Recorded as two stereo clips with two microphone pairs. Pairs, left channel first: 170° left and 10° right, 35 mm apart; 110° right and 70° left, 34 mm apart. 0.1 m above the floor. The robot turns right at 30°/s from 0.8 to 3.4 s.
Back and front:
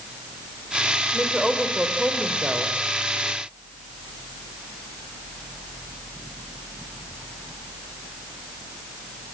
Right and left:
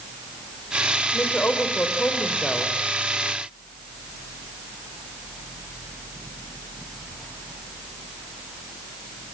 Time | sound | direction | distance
1.1 | a woman speaking | 85° right | 4 m